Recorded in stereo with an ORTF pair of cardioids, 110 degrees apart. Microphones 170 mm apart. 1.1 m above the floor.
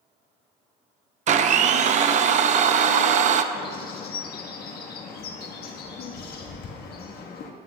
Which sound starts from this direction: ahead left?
A bird, at 3.5 s.